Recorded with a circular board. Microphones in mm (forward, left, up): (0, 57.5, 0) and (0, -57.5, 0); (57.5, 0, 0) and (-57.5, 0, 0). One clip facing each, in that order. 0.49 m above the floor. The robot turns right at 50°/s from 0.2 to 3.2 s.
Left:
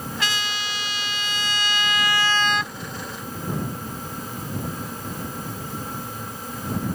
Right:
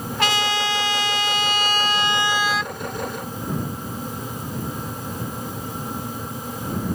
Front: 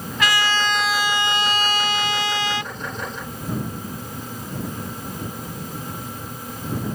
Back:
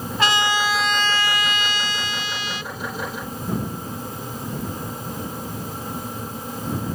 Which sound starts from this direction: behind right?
A trumpet, at 0.2 s.